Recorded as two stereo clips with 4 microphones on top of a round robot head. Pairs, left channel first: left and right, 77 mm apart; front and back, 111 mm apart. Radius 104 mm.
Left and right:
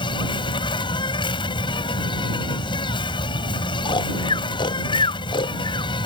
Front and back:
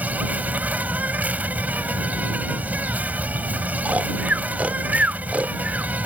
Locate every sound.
0.0 s an insect: 100° left
3.9 s snoring: 100° left